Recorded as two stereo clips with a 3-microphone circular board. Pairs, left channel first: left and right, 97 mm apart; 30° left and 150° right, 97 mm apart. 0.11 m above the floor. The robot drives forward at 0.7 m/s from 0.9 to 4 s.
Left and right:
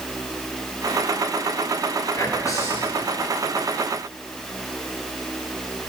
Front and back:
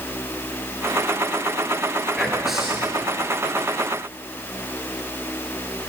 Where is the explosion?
No explosion in this recording.